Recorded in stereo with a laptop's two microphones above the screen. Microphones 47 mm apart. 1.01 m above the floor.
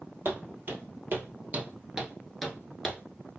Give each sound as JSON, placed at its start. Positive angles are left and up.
{"t": 0.2, "sound": "footsteps", "side_deg": -55, "distance_m": 1.7}